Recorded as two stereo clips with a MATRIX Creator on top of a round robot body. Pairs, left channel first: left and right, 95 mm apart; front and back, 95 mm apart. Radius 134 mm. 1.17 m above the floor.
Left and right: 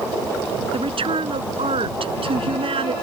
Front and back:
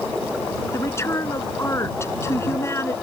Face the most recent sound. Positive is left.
turn(degrees=-65)